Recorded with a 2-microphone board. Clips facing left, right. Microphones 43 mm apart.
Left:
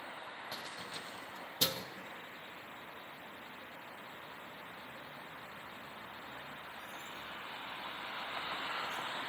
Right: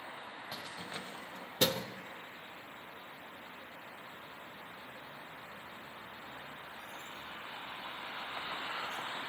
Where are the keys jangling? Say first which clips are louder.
Right 3 dB; centre (ahead or behind), 0.7 m; by 9.0 s 85° right, 7.5 m.